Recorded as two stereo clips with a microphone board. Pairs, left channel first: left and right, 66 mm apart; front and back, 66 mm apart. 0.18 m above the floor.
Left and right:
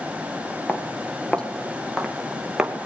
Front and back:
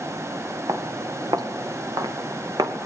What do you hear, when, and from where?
0.7 s footsteps: 155° left, 2.5 m; by 2.9 s 170° right, 2.5 m